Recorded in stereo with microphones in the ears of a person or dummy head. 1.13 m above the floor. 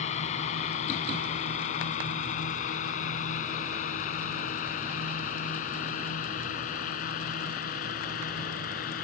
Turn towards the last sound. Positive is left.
turn(degrees=50)  # may be behind; listen again after turning